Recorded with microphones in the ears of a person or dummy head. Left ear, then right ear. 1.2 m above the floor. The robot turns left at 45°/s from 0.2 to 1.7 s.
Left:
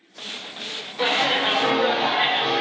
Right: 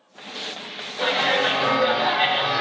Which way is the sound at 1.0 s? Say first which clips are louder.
Even; 25° left.